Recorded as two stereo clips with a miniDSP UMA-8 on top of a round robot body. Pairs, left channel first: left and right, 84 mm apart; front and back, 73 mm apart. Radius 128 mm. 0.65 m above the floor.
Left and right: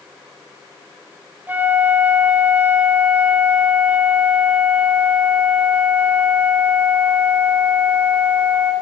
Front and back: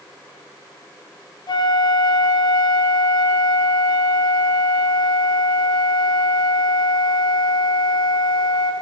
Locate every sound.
1.5 s a flute: 20° right, 2.5 m